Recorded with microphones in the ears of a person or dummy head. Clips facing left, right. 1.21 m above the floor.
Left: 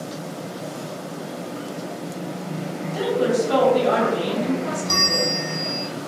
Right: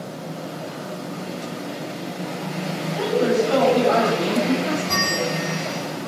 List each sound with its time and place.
2.9 s a woman speaking: 50° left (ahead or behind), 1.8 m
4.9 s a bell: 65° left (ahead or behind), 1.2 m